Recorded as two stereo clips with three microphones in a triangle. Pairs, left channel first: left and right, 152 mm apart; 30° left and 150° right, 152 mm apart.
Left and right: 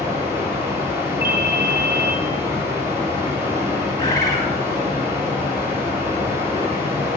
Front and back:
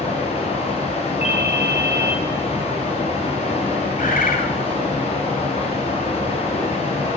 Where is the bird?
25° left, 2.0 m.